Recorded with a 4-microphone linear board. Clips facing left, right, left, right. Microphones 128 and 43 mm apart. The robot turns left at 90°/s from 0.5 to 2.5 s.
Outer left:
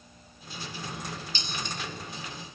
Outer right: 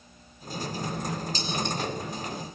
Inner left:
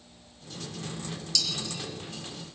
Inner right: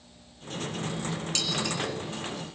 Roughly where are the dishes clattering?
Right.